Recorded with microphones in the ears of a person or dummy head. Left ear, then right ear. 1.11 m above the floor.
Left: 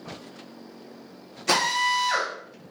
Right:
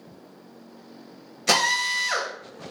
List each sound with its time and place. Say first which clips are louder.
1.5 s a drill: right 1 dB; 30° right (ahead or behind), 0.8 m